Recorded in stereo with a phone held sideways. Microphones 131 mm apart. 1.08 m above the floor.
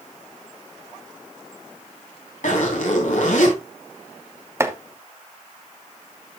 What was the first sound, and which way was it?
A zipper, 75° left (ahead or behind).